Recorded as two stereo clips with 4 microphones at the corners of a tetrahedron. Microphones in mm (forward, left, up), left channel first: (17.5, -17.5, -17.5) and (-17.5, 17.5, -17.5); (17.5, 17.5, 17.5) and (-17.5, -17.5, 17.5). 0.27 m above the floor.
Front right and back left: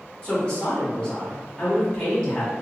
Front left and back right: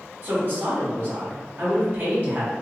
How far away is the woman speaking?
About 1.4 m.